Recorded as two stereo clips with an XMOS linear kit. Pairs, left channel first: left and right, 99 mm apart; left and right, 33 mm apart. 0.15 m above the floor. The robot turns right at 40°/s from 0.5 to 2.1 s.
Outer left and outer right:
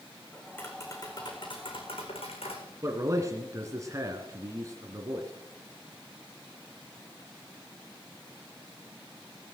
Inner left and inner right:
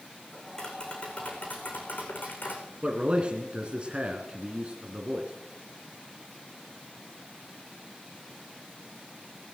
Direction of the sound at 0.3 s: 20° left.